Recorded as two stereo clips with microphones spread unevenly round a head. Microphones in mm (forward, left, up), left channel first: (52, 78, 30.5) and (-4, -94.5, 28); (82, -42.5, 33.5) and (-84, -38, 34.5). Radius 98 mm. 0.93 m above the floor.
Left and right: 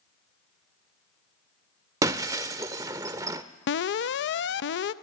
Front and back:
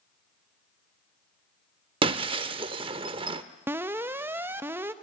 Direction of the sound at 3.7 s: 100° left.